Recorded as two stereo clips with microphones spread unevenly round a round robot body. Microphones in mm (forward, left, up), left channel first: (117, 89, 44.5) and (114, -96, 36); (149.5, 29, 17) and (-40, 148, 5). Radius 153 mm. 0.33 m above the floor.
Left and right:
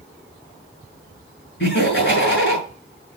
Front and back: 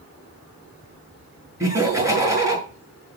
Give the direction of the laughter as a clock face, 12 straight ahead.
10 o'clock.